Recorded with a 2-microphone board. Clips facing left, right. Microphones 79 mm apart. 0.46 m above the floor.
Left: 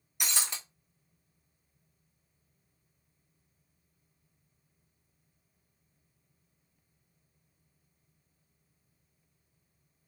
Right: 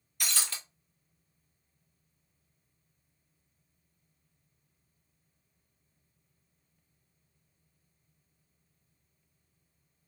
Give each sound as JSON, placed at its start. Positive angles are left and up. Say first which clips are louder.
{"t": 0.2, "sound": "breaking glass", "louder": "left 1 dB", "side_deg": 20, "distance_m": 0.9}